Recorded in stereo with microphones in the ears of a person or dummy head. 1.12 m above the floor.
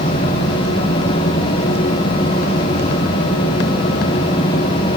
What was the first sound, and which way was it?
Only background noise.